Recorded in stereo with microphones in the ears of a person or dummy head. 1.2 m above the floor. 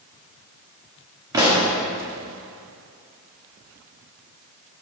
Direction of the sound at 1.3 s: 20° right (ahead or behind).